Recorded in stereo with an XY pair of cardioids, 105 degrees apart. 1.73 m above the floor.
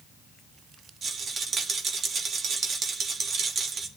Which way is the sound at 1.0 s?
50° right.